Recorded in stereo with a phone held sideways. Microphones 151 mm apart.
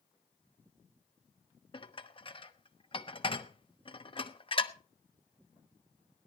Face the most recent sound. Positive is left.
turn(degrees=35)  # may be behind; listen again after turning